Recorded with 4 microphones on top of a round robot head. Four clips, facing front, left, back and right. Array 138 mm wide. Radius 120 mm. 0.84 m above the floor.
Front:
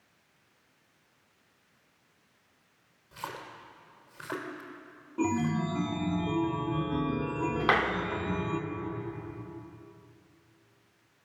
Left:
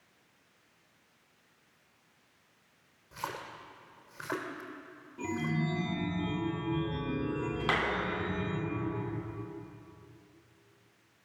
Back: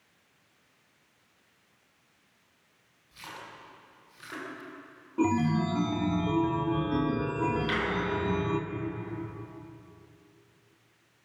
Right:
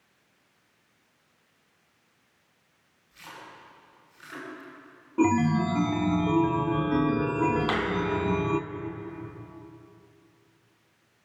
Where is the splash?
55° left, 2.5 m.